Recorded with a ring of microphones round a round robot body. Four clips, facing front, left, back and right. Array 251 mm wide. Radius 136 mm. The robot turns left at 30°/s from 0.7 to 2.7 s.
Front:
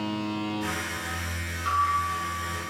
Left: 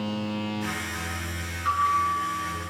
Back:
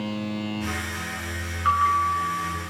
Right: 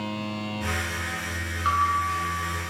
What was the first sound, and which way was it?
A bell, 145° right.